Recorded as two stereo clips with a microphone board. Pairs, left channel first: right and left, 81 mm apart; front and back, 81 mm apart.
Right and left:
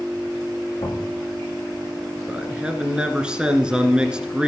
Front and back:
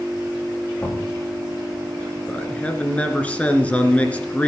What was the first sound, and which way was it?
Knocking, 65° right.